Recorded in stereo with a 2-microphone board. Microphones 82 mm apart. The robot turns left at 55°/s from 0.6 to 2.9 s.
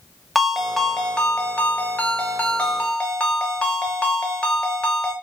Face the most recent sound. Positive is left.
turn(degrees=15)  # may be behind; listen again after turning